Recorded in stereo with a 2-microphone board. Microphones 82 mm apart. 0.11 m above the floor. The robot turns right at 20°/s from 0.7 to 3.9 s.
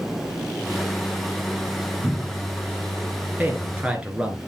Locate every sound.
2.0 s a cupboard door: 65° right (ahead or behind), 2.5 m; by 2.5 s 60° right (ahead or behind), 2.5 m
3.4 s a man speaking: 20° right (ahead or behind), 1.5 m; by 4.4 s 15° right (ahead or behind), 1.5 m